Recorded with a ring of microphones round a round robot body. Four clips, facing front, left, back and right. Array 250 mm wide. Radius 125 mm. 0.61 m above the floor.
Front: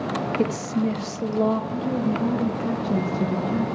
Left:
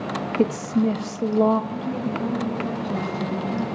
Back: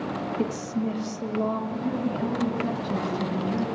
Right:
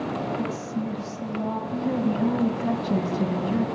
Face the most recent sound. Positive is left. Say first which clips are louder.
# right 2 dB, front 3 dB
turn(degrees=-90)